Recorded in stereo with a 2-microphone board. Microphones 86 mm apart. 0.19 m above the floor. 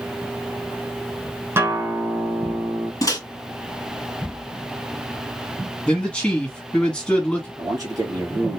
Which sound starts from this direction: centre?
A man speaking, at 5.9 s.